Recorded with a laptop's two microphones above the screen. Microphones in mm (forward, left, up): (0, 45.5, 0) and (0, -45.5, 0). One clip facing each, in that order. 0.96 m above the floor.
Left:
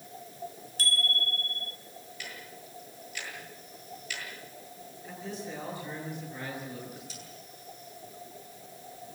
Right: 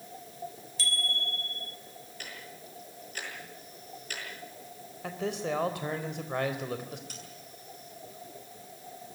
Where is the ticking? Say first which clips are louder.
Even; 45° right (ahead or behind), 8 m.